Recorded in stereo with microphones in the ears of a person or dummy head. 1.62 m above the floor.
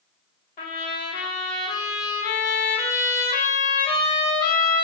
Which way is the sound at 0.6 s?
35° left (ahead or behind).